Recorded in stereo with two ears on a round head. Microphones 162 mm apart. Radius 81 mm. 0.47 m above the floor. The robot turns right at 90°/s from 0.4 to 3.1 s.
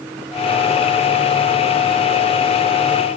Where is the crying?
I don't hear crying.